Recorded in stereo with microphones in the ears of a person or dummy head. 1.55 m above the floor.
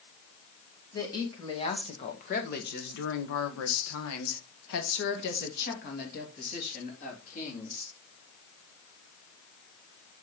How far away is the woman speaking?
About 2 m.